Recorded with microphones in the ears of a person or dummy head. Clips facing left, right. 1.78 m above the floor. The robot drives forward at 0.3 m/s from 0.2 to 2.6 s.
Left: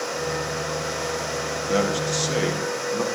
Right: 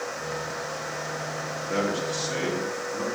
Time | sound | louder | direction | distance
1.7 | a man speaking | left 4 dB | 65° left (ahead or behind) | 1.9 m